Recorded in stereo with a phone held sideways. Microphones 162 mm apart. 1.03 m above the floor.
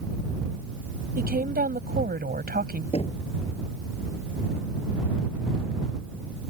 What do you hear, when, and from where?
1.2 s a woman speaking: 85° right
2.9 s knocking: 40° left (ahead or behind)